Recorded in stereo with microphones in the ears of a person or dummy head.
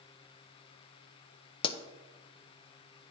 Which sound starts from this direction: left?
A pop, at 1.6 s.